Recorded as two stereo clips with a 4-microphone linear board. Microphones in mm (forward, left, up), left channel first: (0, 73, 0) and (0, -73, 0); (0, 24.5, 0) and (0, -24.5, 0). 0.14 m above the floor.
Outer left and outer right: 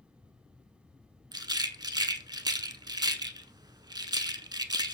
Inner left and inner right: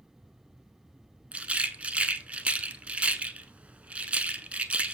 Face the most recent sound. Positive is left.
turn(degrees=-25)  # may be behind; listen again after turning